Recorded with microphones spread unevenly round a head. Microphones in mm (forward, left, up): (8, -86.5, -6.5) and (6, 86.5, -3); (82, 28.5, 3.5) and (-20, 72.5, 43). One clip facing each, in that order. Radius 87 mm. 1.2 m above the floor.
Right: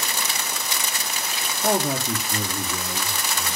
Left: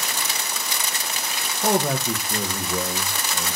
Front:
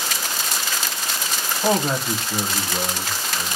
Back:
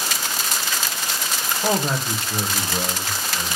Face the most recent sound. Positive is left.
turn(degrees=65)